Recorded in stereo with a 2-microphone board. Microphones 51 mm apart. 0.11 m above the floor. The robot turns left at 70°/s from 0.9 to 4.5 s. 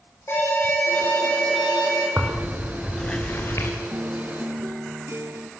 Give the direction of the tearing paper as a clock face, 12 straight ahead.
5 o'clock.